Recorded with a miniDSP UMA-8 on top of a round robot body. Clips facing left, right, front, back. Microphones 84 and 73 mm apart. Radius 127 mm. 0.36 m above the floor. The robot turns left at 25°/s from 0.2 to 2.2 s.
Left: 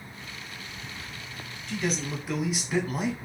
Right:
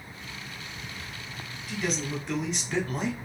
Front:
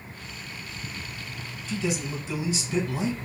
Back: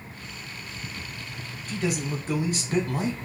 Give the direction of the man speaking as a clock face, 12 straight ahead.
6 o'clock.